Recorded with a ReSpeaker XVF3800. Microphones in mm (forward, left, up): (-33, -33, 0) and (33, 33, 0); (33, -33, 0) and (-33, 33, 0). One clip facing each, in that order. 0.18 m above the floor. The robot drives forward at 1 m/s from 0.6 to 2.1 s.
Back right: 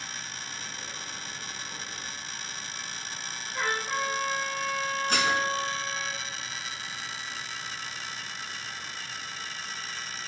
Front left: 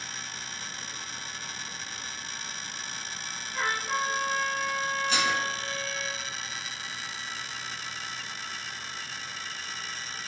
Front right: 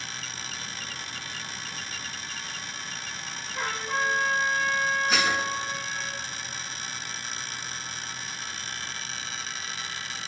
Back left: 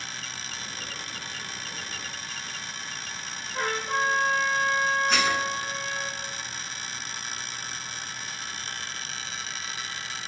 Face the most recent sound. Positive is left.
turn(degrees=-130)